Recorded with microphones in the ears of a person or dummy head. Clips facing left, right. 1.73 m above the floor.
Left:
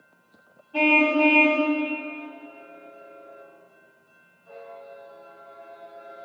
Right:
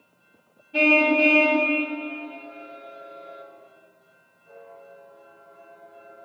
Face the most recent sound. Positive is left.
turn(degrees=-20)  # may be behind; listen again after turning